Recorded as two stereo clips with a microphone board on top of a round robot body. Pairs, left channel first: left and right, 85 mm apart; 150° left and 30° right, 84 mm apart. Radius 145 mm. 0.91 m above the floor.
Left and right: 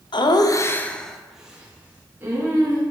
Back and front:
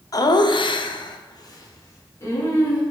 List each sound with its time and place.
0.1 s laughter: 105° left, 0.8 m; by 2.8 s 150° right, 2.5 m